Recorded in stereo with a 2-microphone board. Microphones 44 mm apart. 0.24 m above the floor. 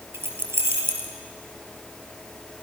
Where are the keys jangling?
70° right (ahead or behind), 3.5 m.